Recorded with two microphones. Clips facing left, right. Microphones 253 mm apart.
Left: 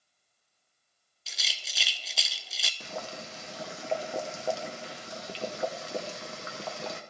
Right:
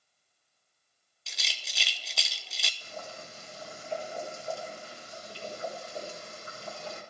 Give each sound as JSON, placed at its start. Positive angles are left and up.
{"t": 1.3, "sound": "a rattle", "side_deg": 0, "distance_m": 0.6}
{"t": 2.8, "sound": "boiling", "side_deg": 70, "distance_m": 0.9}